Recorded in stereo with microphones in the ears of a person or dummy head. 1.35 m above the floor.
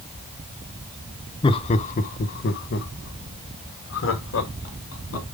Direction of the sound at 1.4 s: 25° left (ahead or behind).